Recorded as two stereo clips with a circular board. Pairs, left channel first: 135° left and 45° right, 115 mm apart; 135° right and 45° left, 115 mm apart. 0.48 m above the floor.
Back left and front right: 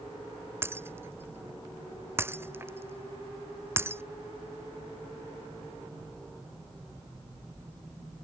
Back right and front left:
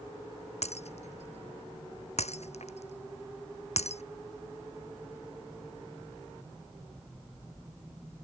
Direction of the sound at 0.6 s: 115° right.